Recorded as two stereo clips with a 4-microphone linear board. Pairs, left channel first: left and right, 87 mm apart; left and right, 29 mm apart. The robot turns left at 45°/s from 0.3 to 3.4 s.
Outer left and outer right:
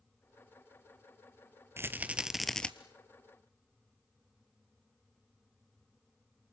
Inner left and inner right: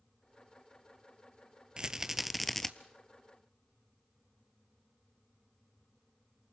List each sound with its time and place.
1.8 s a rattle: 150° right, 0.7 m; by 2.7 s 170° left, 0.7 m